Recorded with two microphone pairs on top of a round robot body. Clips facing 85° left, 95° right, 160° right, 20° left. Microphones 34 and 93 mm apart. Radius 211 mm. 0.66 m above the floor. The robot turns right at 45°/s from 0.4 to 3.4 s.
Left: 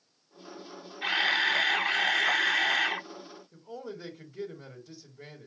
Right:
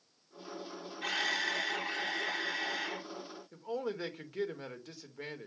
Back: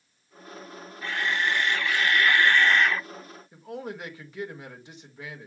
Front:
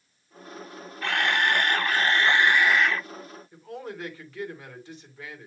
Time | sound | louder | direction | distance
1.0 | a camera shutter | left 7 dB, front 3 dB | 25° left | 0.6 m
3.5 | a man speaking | right 5 dB, back 2 dB | 90° right | 2 m